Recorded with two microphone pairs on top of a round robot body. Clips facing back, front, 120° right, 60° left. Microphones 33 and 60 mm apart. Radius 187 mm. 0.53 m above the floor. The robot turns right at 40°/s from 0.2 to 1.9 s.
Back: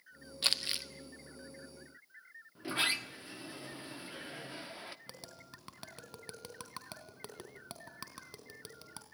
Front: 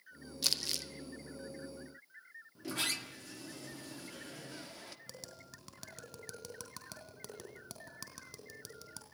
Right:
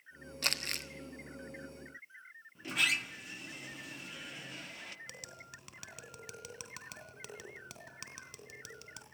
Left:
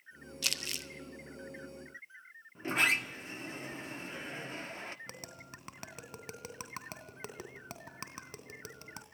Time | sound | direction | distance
0.4 | crumpling | 145° right | 1.8 m
2.5 | a sliding door | 115° left | 1.4 m
5.1 | tapping | 115° left | 3 m